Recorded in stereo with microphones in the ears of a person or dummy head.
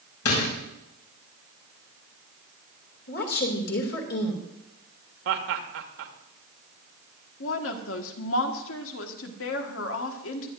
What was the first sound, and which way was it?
A door slam, 85° left.